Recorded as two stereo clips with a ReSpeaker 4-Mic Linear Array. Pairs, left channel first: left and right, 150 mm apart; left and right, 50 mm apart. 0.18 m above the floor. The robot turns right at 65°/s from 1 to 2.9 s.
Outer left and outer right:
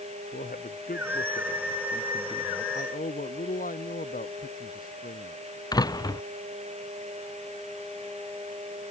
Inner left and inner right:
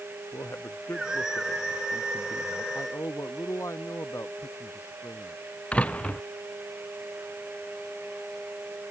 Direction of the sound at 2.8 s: 75° left (ahead or behind).